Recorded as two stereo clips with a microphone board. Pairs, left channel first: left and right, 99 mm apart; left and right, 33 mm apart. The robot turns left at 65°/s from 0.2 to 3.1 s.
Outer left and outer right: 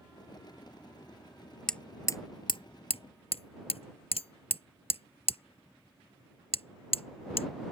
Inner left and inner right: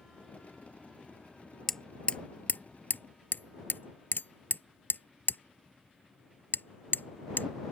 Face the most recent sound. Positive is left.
turn(degrees=80)